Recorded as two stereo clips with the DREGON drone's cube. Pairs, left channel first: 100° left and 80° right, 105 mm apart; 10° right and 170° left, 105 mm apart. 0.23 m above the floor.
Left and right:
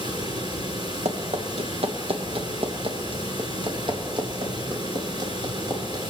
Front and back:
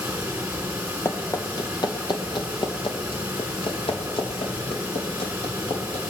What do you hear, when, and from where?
0.0 s running water: 115° right, 3 m
1.1 s running footsteps: 70° right, 1.7 m; by 6.0 s 30° right, 4 m